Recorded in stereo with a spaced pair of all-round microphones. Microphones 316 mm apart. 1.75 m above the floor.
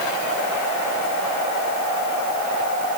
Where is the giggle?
No giggle in this recording.